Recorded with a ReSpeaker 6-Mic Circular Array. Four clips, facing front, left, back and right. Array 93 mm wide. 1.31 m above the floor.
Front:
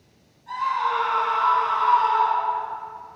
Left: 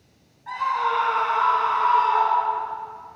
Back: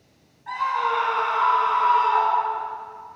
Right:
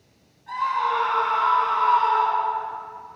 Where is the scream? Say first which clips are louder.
Even, even; 130° left, 5 m.